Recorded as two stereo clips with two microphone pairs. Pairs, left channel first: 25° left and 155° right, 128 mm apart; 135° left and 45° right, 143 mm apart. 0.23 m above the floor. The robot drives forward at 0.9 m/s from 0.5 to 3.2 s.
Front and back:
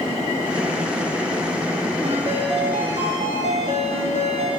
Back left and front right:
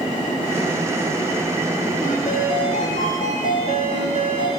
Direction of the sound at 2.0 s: 160° left.